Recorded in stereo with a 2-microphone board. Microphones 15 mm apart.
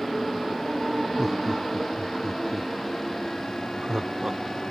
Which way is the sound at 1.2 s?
20° right (ahead or behind).